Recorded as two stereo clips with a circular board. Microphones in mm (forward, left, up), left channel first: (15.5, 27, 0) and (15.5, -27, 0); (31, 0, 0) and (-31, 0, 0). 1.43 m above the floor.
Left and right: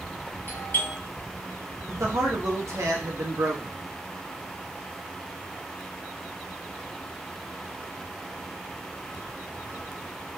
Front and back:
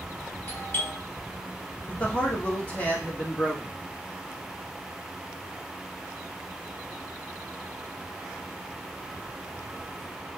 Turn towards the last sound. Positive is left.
turn(degrees=-65)